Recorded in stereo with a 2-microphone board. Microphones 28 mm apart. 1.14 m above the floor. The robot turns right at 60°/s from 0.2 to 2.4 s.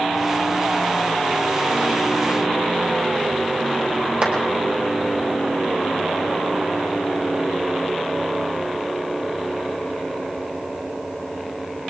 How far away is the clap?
About 3 m.